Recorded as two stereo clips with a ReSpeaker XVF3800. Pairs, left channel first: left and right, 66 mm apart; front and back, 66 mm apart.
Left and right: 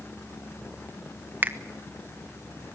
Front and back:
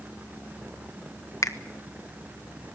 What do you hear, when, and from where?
1.4 s a finger snap: 30° right, 1.2 m